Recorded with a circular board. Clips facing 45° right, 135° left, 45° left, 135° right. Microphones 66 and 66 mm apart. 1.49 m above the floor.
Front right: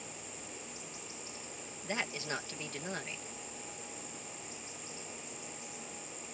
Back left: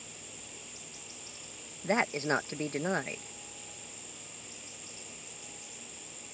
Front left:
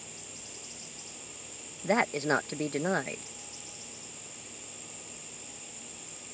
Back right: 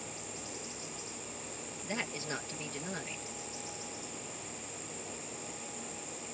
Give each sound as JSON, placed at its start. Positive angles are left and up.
{"t": 1.8, "sound": "a woman speaking", "azimuth_deg": 80}